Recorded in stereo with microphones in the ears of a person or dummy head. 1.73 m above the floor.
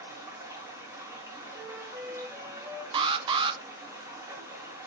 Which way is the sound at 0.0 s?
15° right (ahead or behind).